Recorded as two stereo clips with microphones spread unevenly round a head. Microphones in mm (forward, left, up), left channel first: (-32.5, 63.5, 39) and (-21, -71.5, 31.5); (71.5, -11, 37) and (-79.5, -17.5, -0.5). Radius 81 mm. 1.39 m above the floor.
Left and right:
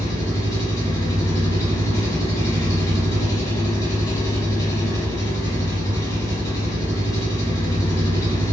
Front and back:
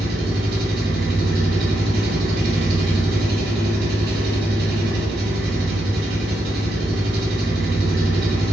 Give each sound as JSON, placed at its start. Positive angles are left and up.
{"t": 0.0, "sound": "an engine running", "azimuth_deg": 155, "distance_m": 1.2}